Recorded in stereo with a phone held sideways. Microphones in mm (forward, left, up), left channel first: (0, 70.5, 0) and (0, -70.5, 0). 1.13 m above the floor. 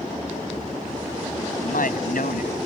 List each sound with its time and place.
1.6 s a man speaking: 80° left